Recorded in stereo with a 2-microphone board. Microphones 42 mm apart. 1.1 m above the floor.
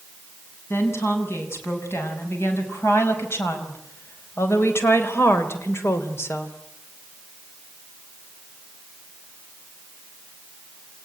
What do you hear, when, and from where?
0.7 s a woman speaking: 70° left (ahead or behind), 7.5 m; by 6.5 s 75° left (ahead or behind), 3 m